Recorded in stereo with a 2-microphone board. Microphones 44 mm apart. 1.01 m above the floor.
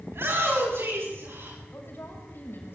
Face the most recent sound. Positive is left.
turn(degrees=55)  # may be behind; listen again after turning